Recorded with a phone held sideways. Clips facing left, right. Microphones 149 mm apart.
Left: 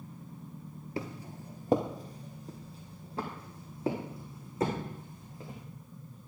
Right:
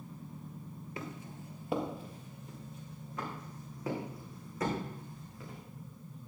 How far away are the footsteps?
About 1.6 m.